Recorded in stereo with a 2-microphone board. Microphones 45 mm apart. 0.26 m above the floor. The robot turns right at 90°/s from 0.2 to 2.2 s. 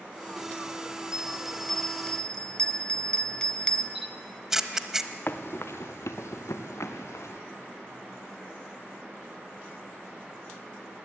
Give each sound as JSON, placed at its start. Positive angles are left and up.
{"t": 1.1, "sound": "a bell", "side_deg": -15, "distance_m": 0.8}
{"t": 4.0, "sound": "a camera shutter", "side_deg": -10, "distance_m": 1.1}
{"t": 5.3, "sound": "running footsteps", "side_deg": 50, "distance_m": 1.6}